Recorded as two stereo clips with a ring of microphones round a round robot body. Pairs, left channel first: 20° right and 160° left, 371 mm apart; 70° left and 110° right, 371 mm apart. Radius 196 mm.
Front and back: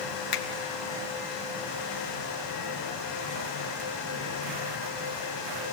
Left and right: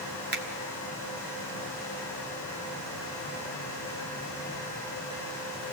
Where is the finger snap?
50° right, 1.7 m.